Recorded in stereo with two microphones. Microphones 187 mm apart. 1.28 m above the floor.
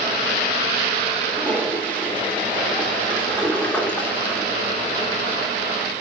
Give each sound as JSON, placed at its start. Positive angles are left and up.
{"t": 1.3, "sound": "a toilet flushing", "side_deg": 5, "distance_m": 3.5}